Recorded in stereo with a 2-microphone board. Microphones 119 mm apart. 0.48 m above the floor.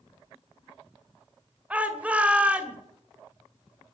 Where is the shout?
10° right (ahead or behind), 2 m.